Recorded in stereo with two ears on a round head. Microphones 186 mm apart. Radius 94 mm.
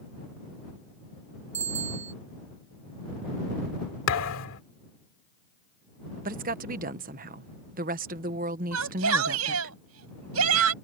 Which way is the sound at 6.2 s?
40° right (ahead or behind).